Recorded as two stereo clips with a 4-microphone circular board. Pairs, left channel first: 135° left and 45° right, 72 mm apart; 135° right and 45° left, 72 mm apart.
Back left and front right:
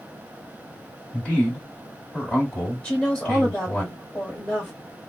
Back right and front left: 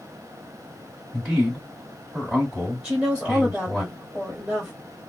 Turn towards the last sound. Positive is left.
turn(degrees=85)